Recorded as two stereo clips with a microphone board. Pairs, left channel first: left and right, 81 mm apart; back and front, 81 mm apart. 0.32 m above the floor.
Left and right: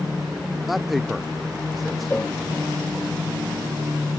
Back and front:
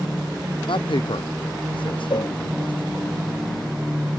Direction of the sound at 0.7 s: Straight behind.